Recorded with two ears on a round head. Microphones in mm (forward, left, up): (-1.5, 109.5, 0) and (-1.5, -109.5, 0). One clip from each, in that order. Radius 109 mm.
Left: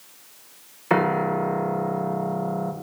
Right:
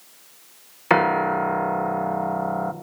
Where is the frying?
No frying in this recording.